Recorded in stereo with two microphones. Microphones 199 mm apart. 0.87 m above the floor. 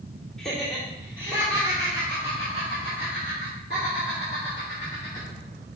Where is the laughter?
Centre (ahead or behind), 2.5 m; by 5.3 s 65° right (ahead or behind), 3.5 m.